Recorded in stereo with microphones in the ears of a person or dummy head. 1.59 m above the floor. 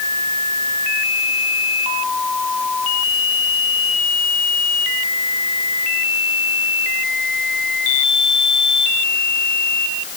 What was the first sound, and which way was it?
Only background noise.